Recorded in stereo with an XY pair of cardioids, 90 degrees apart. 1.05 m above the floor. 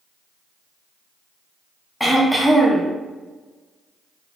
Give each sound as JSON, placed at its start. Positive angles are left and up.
{"t": 2.0, "sound": "throat clearing", "azimuth_deg": 0, "distance_m": 0.7}